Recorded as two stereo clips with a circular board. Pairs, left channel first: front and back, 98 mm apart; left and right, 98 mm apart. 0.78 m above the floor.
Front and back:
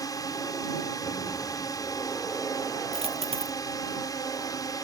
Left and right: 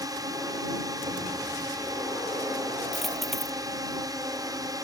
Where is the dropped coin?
Straight behind.